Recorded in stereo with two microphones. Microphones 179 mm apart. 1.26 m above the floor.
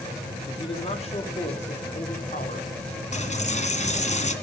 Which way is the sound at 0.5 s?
30° left (ahead or behind).